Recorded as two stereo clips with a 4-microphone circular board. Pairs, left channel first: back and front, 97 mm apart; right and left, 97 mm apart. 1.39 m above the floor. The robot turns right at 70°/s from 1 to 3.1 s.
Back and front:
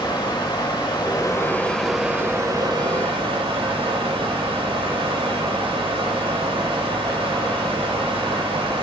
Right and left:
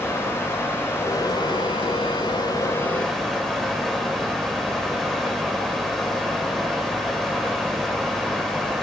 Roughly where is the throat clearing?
I don't hear throat clearing.